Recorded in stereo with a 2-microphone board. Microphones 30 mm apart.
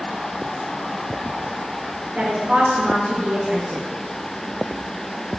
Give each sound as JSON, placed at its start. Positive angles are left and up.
{"t": 2.1, "sound": "a woman speaking", "side_deg": -40, "distance_m": 4.5}